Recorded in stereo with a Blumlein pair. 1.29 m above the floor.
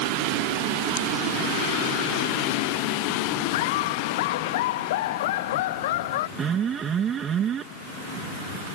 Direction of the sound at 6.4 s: 25° right.